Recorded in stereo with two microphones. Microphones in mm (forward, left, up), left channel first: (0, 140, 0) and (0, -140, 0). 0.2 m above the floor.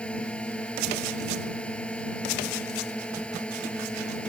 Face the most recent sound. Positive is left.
turn(degrees=5)  # may be behind; listen again after turning